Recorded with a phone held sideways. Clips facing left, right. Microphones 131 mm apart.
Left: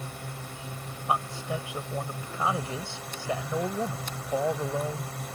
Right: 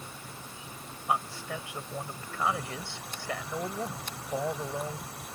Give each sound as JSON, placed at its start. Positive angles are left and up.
{"t": 0.0, "sound": "a drone", "side_deg": 70}
{"t": 1.1, "sound": "a man speaking", "side_deg": 20}